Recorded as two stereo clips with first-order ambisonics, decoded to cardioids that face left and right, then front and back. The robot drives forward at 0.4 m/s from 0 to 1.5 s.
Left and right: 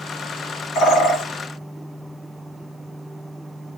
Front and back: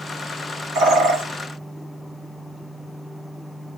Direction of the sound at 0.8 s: 135° left.